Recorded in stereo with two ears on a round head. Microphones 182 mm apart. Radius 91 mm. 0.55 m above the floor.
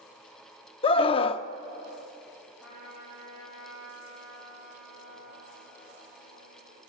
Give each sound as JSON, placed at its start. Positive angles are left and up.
{"t": 0.8, "sound": "a scream", "side_deg": 25, "distance_m": 0.7}
{"t": 2.6, "sound": "a trumpet", "side_deg": 0, "distance_m": 9.0}